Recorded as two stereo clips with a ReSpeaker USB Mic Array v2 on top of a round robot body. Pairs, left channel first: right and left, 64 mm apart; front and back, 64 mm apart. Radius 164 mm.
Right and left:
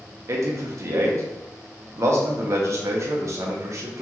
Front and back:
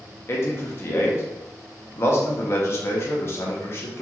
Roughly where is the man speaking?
Ahead left.